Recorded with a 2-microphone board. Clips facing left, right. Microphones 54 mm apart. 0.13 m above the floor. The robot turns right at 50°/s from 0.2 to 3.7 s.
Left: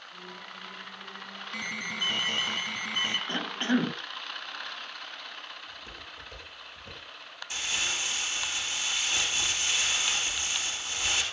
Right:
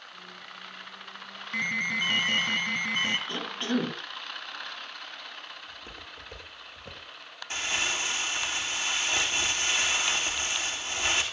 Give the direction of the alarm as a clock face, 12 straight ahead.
4 o'clock.